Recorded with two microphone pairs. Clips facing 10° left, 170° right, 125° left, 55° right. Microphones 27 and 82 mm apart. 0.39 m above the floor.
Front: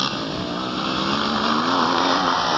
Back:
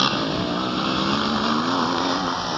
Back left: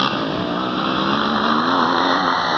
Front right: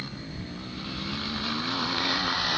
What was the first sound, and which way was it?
A motorcycle, 115° left.